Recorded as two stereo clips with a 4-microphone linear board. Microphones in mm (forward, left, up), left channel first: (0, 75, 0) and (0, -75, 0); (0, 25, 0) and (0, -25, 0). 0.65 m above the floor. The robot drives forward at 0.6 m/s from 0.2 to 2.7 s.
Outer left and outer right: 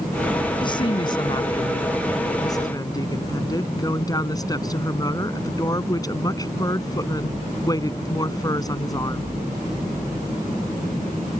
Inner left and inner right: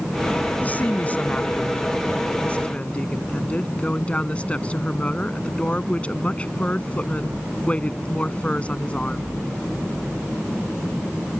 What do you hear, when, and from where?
0.6 s a woman speaking: 35° left (ahead or behind); by 9.2 s 25° left (ahead or behind)